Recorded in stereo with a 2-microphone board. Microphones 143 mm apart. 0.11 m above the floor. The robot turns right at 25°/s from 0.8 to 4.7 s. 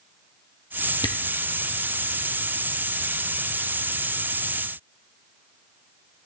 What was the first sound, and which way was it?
A camera shutter, 30° left (ahead or behind).